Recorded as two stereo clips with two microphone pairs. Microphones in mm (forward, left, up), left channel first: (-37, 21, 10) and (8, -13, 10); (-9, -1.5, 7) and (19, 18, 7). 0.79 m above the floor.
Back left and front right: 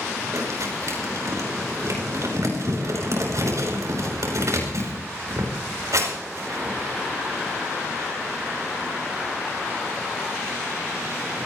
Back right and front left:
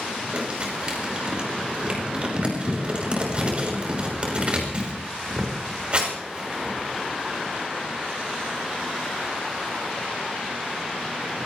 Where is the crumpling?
20° right, 5.5 m.